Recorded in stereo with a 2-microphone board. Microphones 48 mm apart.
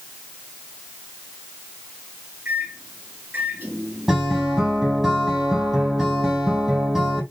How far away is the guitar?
About 7 m.